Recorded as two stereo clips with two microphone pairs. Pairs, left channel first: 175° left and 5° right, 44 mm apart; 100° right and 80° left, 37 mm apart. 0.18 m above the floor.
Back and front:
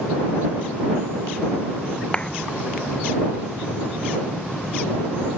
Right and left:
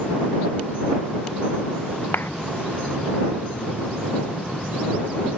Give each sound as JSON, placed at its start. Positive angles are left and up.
{"t": 2.1, "sound": "a clap", "azimuth_deg": -115}